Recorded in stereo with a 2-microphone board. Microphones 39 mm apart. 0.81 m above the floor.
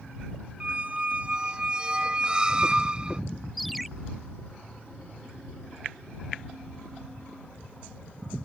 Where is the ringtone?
Centre (ahead or behind).